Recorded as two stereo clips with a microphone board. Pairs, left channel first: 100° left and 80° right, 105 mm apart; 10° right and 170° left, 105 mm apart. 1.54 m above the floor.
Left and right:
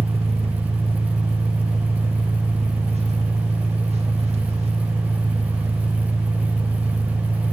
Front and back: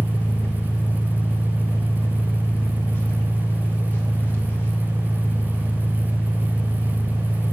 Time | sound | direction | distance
0.0 | an engine running | 80° right | 1.6 m